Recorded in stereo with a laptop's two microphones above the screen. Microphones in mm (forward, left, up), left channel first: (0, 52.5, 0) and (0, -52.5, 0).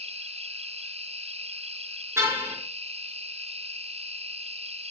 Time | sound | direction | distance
0.0 | an insect | 75° right (ahead or behind) | 1.0 m
2.2 | a car horn | 25° right (ahead or behind) | 6 m